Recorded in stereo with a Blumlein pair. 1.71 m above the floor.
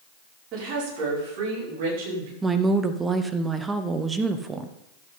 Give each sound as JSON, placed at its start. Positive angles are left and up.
{"t": 0.5, "sound": "a woman speaking", "azimuth_deg": -35, "distance_m": 5.5}
{"t": 2.4, "sound": "a woman speaking", "azimuth_deg": -15, "distance_m": 0.9}